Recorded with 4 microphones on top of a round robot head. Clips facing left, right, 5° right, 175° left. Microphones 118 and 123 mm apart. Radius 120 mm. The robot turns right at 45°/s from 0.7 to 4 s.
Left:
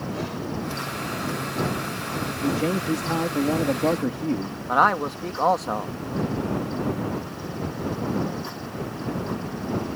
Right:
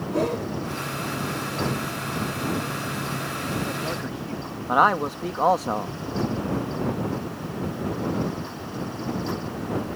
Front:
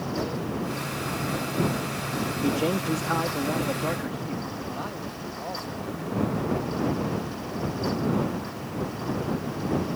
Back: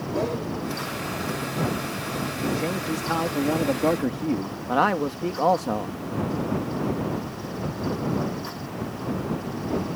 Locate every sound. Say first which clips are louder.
0.1 s a whoosh: right 9 dB, back 5 dB; 130° right
2.4 s a man speaking: left 5 dB, front 2 dB; 65° left; by 4.6 s 135° left
4.7 s a man speaking: right 1 dB, back 12 dB; 175° right